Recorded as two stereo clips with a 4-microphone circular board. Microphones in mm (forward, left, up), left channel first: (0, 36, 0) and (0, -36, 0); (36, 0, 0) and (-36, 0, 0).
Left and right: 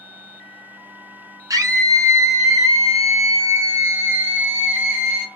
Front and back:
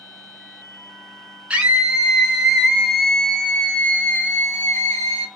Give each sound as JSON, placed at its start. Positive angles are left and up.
{"t": 1.5, "sound": "a scream", "azimuth_deg": -110, "distance_m": 2.0}